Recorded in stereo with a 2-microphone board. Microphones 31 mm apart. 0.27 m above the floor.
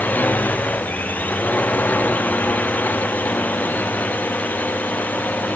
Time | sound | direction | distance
0.0 | a drone | 65° left (ahead or behind) | ?